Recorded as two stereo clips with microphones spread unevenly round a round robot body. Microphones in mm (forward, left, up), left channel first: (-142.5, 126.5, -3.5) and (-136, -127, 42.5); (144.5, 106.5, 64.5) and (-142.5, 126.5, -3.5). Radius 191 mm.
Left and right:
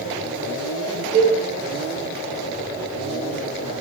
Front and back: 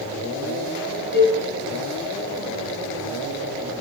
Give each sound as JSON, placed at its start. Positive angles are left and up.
{"t": 1.1, "sound": "a cowbell", "azimuth_deg": 45, "distance_m": 1.1}